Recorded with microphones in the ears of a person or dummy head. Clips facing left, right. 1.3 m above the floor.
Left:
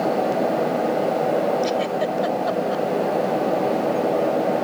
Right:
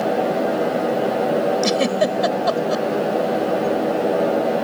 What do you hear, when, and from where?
1.6 s a giggle: 65° right (ahead or behind)